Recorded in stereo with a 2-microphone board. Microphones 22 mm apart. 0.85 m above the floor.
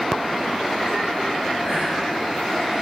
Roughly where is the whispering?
Centre.